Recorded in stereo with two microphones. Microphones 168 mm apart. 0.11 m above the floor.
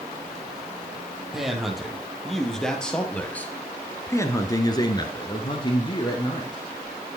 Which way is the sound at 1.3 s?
Centre (ahead or behind).